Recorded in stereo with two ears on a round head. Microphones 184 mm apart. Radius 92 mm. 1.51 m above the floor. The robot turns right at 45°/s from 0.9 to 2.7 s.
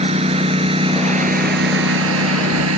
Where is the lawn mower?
30° right (ahead or behind); by 2.8 s 80° right.